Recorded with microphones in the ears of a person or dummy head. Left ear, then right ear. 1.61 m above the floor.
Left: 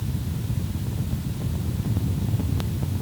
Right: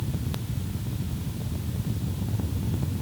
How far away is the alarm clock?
No alarm clock in this recording.